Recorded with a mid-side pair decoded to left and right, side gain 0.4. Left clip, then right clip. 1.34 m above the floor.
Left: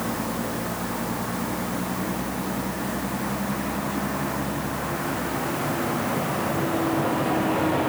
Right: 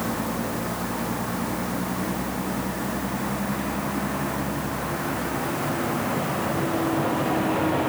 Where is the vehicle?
5° right; by 7.9 s straight ahead.